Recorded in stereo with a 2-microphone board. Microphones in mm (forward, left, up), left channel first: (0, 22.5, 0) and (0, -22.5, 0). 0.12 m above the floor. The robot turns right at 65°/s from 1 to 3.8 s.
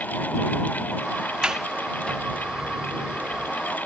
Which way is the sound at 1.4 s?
20° right (ahead or behind).